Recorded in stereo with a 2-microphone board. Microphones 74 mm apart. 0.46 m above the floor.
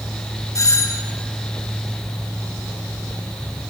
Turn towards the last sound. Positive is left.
turn(degrees=45)  # may be behind; listen again after turning